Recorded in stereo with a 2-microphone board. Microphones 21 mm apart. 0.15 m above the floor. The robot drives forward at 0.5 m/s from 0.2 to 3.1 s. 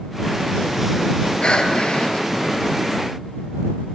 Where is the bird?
I don't hear a bird.